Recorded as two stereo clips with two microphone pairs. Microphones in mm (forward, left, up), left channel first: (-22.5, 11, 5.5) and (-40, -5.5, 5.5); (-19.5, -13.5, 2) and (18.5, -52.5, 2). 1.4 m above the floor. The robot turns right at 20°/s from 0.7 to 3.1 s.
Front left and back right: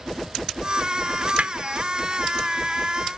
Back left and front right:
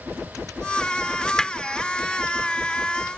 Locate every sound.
1.4 s hammering: 150° right; by 1.5 s 145° right